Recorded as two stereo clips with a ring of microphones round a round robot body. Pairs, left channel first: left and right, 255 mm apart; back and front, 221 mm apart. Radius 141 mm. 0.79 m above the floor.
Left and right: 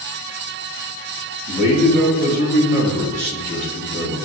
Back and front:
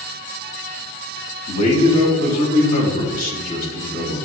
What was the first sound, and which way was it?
A man speaking, 160° right.